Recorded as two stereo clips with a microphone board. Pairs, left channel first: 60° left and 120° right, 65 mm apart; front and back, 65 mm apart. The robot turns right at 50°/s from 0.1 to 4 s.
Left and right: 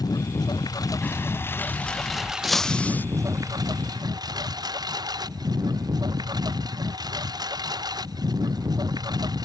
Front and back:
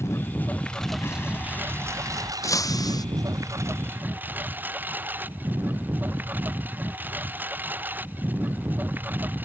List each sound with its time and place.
0.0 s a lawn mower: 45° left; by 9.5 s 120° right
1.0 s an explosion: 15° left; by 2.3 s 80° left
2.4 s breaking glass: 35° right; by 3.0 s straight ahead